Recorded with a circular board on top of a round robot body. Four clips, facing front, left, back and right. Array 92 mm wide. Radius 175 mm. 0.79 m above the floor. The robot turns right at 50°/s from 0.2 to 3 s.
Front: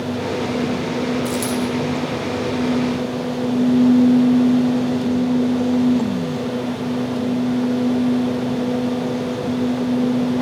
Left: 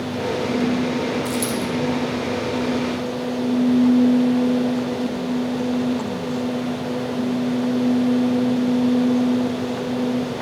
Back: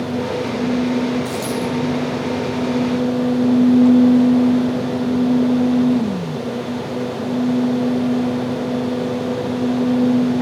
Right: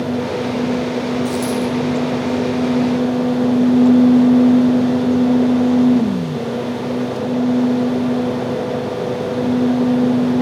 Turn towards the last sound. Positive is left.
turn(degrees=115)